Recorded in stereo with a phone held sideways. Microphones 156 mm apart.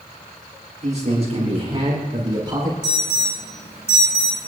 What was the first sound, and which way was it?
A man speaking, 50° right (ahead or behind).